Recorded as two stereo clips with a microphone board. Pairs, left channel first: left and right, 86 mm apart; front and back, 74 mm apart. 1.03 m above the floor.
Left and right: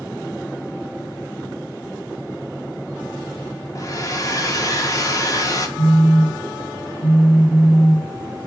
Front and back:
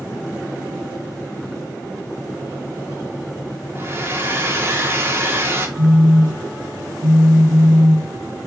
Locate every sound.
3.8 s a hair dryer: 130° left, 0.8 m
5.8 s a phone buzzing: 100° left, 3 m